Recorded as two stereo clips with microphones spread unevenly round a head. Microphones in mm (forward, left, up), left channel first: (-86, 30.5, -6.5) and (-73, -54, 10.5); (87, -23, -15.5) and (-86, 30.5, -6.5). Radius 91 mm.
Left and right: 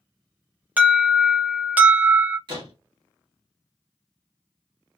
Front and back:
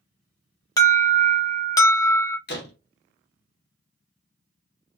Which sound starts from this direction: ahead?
An alarm, at 0.8 s.